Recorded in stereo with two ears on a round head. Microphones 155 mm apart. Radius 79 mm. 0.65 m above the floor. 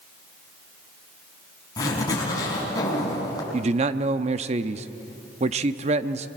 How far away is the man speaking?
About 0.7 m.